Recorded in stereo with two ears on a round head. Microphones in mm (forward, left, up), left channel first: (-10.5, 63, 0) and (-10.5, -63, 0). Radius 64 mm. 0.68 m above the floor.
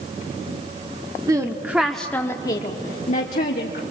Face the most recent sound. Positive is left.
turn(degrees=65)  # may be behind; listen again after turning